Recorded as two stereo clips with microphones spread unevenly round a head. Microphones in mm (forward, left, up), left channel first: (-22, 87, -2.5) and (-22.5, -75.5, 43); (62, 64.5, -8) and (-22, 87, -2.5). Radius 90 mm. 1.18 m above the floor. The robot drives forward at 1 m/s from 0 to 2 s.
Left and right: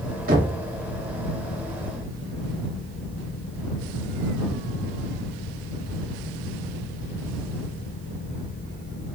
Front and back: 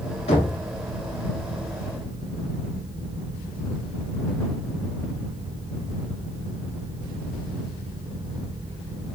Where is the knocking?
45° right, 1.9 m; by 0.6 s 50° right, 1.7 m.